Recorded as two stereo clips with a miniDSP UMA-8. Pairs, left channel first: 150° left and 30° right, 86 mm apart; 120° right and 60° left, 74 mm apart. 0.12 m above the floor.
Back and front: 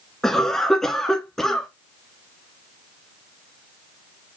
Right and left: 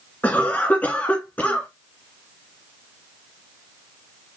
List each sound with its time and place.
0.2 s a cough: 135° right, 1.6 m